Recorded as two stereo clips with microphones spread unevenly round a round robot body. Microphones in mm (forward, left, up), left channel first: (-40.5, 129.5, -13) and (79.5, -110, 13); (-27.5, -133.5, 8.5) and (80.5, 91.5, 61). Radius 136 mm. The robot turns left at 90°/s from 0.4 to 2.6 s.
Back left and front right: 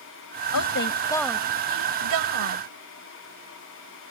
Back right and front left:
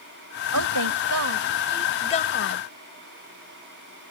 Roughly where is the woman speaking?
Left.